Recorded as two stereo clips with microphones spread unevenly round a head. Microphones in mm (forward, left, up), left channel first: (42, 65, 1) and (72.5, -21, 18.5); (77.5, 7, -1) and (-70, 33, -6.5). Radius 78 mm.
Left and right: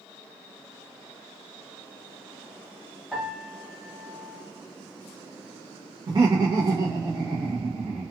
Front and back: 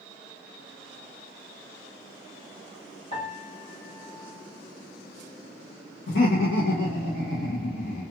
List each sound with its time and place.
3.1 s a piano: straight ahead, 1.9 m
6.1 s laughter: 25° right, 0.8 m